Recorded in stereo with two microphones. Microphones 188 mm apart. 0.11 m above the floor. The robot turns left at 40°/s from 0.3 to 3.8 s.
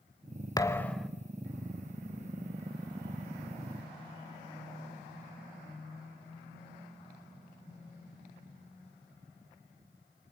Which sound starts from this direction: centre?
A thud, at 0.6 s.